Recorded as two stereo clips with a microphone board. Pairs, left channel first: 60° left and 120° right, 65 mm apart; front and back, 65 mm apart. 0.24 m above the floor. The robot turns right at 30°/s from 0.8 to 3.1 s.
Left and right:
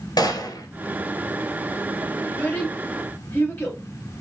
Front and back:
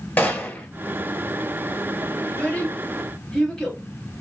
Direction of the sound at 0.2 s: 60° left.